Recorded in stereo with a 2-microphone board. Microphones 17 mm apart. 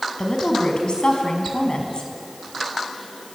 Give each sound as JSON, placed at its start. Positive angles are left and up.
{"t": 0.2, "sound": "a woman speaking", "side_deg": 65, "distance_m": 5.5}